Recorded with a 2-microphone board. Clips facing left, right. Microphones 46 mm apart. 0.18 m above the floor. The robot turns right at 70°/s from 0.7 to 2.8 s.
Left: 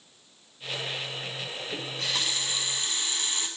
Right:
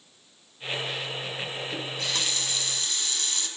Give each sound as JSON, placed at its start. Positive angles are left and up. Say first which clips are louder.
{"t": 1.7, "sound": "a running tap", "louder": "left 1 dB", "side_deg": -5, "distance_m": 0.7}